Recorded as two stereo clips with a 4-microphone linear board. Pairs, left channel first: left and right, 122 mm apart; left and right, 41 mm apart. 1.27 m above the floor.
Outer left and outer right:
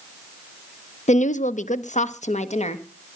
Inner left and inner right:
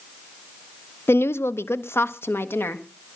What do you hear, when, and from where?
1.1 s a woman speaking: 70° left (ahead or behind), 0.7 m; by 2.8 s 65° left (ahead or behind), 1.8 m